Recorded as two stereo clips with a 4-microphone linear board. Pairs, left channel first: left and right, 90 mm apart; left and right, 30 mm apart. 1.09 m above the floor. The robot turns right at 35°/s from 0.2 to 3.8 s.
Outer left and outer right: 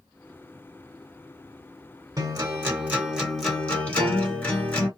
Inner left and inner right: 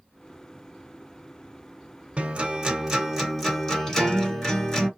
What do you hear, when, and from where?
2.2 s a guitar: 45° right, 1.9 m; by 4.9 s 15° left, 1.9 m